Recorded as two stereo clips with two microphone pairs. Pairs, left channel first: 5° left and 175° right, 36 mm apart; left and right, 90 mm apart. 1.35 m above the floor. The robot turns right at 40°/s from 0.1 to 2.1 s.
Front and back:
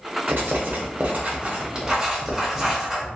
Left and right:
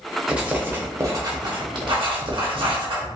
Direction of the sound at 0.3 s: 170° right.